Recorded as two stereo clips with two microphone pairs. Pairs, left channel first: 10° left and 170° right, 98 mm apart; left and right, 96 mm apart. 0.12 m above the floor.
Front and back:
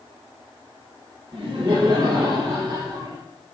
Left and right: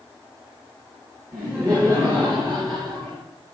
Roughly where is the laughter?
Behind right.